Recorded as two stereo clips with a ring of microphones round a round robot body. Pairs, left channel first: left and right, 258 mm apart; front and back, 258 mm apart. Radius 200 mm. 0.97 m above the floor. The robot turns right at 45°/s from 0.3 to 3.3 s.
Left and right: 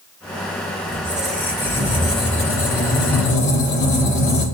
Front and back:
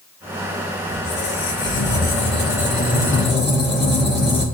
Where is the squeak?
20° right, 4.5 m; by 4.5 s 90° left, 4.5 m.